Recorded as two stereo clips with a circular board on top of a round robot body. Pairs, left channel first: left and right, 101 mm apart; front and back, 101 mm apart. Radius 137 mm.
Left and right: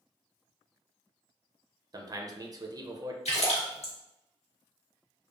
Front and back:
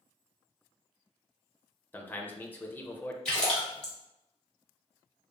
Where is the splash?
80° left, 1.6 m.